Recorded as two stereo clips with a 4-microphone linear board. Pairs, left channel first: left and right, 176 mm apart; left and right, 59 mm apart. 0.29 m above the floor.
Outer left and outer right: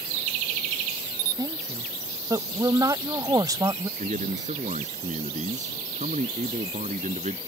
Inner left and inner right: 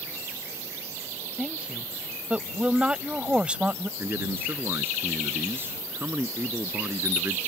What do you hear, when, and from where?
1.4 s a woman speaking: 20° right (ahead or behind)
4.0 s a man speaking: 45° right (ahead or behind)